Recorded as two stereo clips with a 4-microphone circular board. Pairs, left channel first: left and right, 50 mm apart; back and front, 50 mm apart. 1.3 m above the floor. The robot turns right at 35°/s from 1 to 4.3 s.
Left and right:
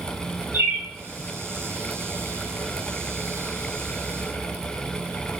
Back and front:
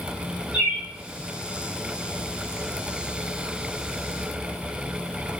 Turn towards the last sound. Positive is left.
turn(degrees=50)